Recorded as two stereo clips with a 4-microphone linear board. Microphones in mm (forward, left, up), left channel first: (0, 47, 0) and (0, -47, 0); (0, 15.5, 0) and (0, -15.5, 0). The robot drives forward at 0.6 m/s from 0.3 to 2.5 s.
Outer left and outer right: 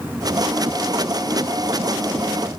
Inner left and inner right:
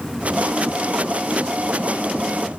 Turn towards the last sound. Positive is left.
No sound to turn to.